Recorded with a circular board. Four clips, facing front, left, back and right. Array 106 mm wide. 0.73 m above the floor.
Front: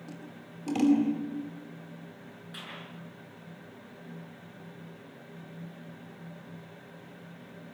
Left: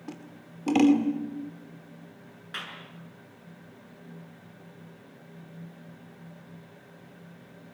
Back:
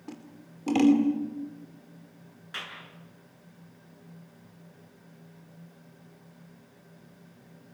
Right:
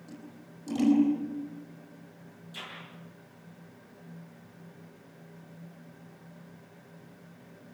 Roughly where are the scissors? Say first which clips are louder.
Left 5 dB, back 5 dB; behind left.